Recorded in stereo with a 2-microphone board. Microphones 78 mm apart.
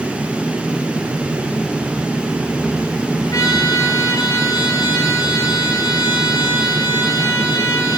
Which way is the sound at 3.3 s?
50° left (ahead or behind).